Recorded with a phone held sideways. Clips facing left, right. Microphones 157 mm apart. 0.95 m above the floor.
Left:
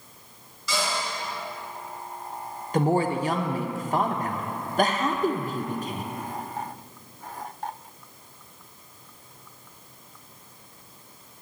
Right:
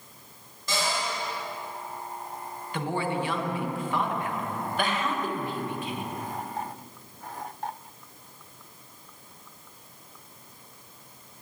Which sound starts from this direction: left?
A woman speaking, at 2.7 s.